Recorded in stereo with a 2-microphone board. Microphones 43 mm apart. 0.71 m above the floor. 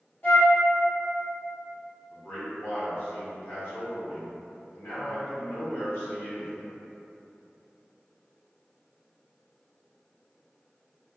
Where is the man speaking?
70° left (ahead or behind), 1.7 m.